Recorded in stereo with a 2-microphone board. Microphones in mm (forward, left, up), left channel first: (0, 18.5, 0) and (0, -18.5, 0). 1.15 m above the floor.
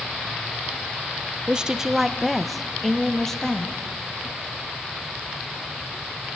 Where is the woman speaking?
25° right (ahead or behind), 0.8 m; by 3.8 s 15° left (ahead or behind), 2 m.